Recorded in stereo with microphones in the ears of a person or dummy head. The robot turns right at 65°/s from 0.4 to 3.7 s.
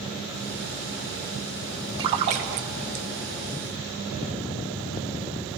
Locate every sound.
2.0 s a splash: 30° right (ahead or behind), 0.6 m; by 3.0 s 45° right (ahead or behind), 0.6 m